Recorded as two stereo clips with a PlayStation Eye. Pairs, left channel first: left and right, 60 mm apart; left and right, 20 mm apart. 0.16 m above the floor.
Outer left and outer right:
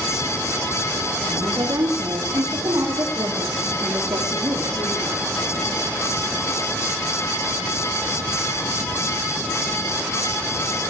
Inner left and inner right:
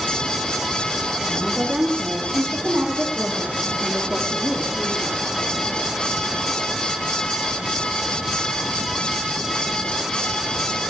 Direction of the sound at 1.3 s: 75° right (ahead or behind).